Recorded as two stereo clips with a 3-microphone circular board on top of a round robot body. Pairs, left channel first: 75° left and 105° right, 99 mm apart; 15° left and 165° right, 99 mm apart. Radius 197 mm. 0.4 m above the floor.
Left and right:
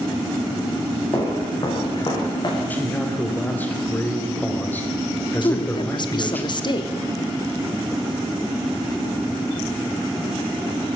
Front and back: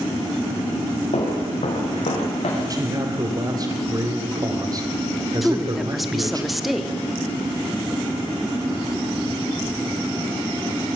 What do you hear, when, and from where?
1.1 s footsteps: 25° left, 5 m; by 2.6 s 30° left, 5.5 m
2.7 s a man speaking: 145° left, 3.5 m
5.4 s a woman speaking: 105° left, 1.6 m